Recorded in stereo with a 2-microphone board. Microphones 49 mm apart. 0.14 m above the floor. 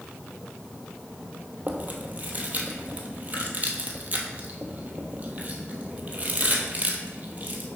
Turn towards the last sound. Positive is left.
turn(degrees=-35)  # may be behind; listen again after turning